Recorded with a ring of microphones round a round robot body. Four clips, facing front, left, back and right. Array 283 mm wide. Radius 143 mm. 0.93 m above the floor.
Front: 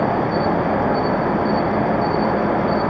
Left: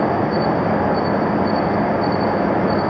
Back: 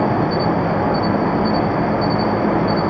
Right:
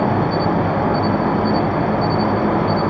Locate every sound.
0.0 s an insect: 115° right, 6.5 m